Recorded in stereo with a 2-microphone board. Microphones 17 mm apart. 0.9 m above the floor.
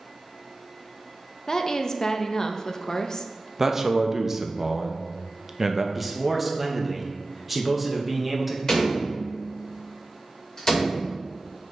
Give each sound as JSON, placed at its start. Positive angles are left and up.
{"t": 1.5, "sound": "a woman speaking", "side_deg": 30, "distance_m": 0.5}
{"t": 3.6, "sound": "a man speaking", "side_deg": -25, "distance_m": 0.6}
{"t": 6.0, "sound": "a man speaking", "side_deg": -10, "distance_m": 0.9}
{"t": 8.7, "sound": "a door slam", "side_deg": 35, "distance_m": 2.5}